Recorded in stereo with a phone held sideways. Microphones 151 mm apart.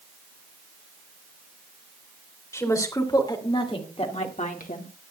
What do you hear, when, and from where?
2.5 s a woman speaking: 20° left (ahead or behind), 3 m; by 4.9 s 65° left (ahead or behind), 1.6 m